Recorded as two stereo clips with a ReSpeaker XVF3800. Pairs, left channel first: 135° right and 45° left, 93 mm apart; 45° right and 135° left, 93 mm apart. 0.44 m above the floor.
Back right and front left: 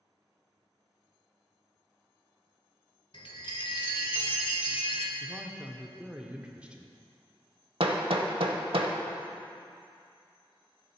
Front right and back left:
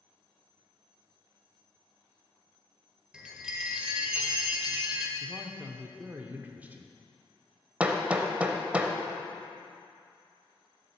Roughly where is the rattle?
No rattle in this recording.